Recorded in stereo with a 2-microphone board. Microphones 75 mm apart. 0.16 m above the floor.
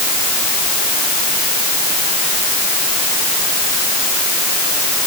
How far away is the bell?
I don't hear a bell.